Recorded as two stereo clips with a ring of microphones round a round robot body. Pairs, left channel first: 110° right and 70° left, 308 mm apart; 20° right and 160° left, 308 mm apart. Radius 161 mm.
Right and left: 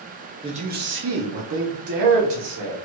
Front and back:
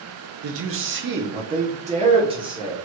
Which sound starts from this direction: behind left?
A man speaking, at 0.4 s.